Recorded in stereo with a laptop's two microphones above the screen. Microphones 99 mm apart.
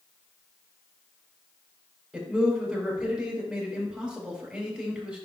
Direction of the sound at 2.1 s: 5° right (ahead or behind).